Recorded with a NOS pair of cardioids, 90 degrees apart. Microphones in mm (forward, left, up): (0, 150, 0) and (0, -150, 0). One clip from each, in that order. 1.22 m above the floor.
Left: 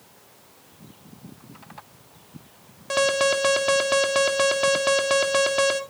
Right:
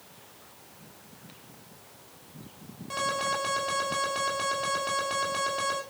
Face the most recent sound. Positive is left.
turn(degrees=65)